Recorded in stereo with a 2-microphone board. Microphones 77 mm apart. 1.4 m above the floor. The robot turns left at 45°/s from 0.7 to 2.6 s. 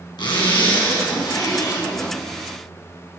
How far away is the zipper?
About 3.5 m.